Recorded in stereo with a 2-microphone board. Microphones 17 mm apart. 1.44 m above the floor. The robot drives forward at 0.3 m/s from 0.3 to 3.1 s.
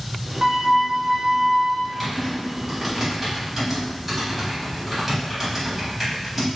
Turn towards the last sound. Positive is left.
turn(degrees=-5)  # may be behind; listen again after turning